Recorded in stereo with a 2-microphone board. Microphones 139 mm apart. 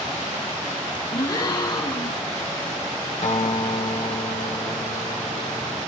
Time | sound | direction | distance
1.1 | a gasp | 30° left (ahead or behind) | 1.7 m
3.2 | a guitar | 60° left (ahead or behind) | 2 m